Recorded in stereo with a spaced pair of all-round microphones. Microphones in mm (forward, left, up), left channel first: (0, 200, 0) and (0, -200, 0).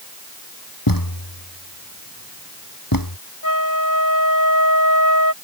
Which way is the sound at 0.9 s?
55° left (ahead or behind).